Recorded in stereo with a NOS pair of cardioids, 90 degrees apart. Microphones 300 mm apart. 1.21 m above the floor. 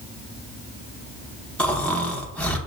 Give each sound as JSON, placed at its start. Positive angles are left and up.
{"t": 1.6, "sound": "snoring", "azimuth_deg": 5, "distance_m": 0.8}